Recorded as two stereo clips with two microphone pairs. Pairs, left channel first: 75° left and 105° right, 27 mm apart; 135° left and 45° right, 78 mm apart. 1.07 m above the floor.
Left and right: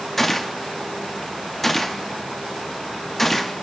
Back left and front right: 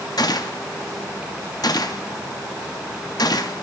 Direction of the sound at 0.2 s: 160° left.